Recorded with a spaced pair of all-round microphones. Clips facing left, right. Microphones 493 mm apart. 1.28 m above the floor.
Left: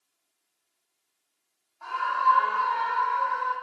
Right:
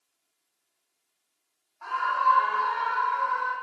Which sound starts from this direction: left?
A scream, at 1.8 s.